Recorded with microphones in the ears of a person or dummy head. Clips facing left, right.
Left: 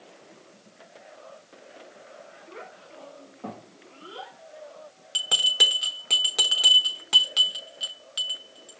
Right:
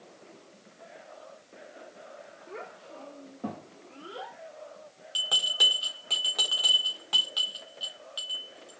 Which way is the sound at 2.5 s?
40° right (ahead or behind).